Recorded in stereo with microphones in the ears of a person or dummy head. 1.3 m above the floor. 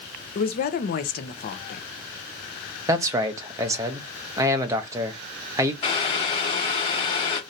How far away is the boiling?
About 0.9 m.